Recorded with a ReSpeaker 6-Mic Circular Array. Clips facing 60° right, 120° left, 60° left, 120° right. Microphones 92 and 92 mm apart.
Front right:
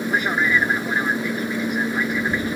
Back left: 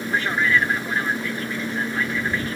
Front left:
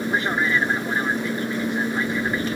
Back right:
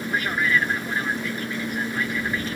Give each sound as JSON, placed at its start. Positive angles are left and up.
{"t": 0.0, "sound": "an aircraft", "azimuth_deg": 10}